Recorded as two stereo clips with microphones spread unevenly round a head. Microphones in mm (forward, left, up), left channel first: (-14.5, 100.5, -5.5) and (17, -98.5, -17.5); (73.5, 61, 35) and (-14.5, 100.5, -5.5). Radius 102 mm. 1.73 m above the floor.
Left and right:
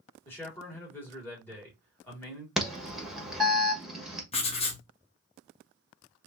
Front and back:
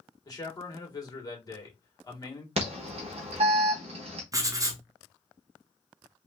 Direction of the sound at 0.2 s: 20° left.